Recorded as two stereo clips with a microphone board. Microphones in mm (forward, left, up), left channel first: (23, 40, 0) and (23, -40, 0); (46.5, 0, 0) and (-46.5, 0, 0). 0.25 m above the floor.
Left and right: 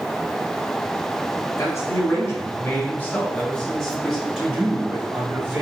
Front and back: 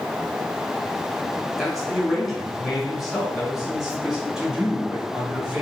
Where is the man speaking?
90° left, 1.9 m; by 5.6 s 110° right, 1.6 m.